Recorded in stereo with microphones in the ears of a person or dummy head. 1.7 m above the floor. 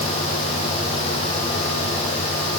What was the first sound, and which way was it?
Only background noise.